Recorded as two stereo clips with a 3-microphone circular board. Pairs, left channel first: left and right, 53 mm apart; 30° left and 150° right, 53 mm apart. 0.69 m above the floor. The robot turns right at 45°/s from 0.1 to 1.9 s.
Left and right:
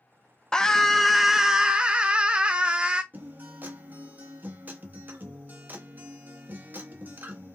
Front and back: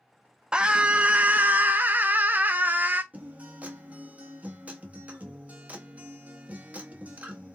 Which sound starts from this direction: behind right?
A guitar, at 3.1 s.